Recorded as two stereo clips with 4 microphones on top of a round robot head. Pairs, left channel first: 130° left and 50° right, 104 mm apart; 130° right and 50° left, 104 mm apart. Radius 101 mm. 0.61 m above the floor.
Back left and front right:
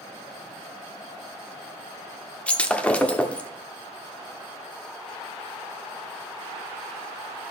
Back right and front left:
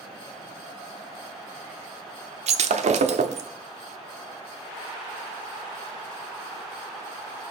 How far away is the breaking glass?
About 0.8 m.